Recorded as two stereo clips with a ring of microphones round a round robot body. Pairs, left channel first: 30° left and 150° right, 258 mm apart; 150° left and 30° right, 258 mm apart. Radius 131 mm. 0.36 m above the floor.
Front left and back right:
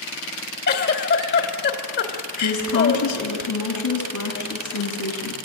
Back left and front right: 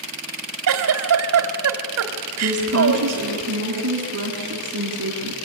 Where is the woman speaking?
15° left, 3 m.